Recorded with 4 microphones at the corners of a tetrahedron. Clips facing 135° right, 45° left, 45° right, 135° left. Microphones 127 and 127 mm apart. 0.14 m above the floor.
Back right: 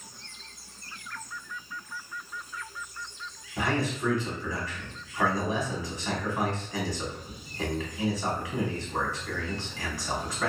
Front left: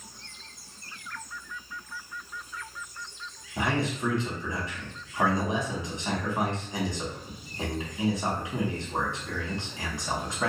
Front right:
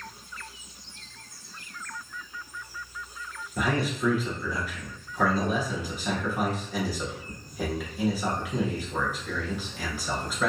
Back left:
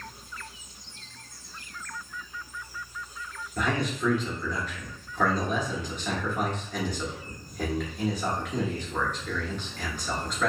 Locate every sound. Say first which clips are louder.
3.6 s a man speaking: even, front right 1 dB; 25° left, 1.1 m